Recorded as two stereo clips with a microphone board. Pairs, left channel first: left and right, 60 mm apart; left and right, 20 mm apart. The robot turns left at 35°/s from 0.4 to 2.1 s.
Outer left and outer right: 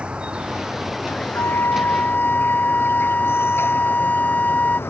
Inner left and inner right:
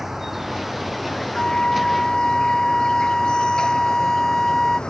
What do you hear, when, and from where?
0.0 s an insect: 160° right; by 4.9 s 140° left
1.4 s a flute: 50° left (ahead or behind); by 4.8 s 25° left (ahead or behind)